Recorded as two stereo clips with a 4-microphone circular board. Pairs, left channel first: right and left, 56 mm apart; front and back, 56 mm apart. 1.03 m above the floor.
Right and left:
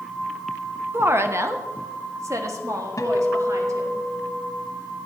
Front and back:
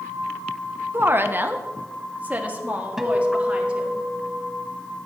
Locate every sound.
0.9 s a woman speaking: 135° left, 0.8 m; by 4.0 s 110° left, 2.5 m
3.0 s a guitar: 95° right, 1.2 m